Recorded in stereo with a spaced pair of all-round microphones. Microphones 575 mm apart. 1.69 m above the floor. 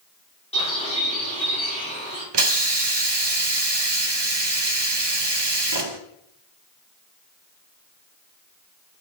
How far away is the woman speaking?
I don't hear a woman speaking.